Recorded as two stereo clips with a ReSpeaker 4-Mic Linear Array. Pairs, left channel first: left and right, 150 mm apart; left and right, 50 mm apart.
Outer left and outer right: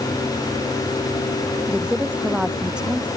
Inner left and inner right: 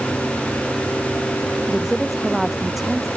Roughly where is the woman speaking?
Centre.